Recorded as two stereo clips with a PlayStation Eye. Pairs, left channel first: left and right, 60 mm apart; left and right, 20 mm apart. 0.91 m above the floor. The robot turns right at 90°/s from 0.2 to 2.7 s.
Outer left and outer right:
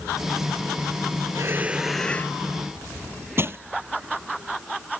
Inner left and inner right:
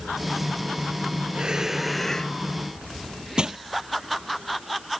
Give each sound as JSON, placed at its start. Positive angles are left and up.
{"t": 1.3, "sound": "breathing", "azimuth_deg": -55}
{"t": 3.4, "sound": "crushing", "side_deg": -40}